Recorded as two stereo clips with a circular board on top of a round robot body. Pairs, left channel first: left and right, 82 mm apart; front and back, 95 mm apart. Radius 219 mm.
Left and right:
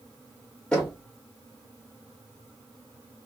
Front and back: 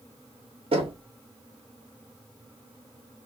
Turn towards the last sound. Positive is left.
turn(degrees=170)